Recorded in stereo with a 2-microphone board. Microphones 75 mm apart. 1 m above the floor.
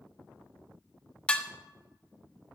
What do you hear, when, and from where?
1.3 s dishes clattering: 15° left (ahead or behind), 0.6 m